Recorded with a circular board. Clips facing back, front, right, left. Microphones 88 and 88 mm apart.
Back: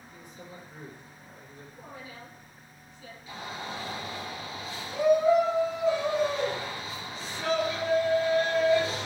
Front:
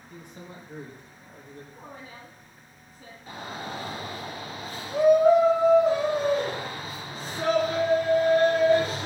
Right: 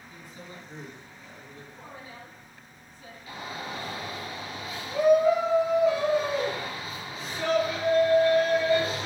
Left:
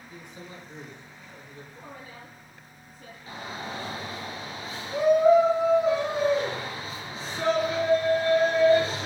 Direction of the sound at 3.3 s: 35° left.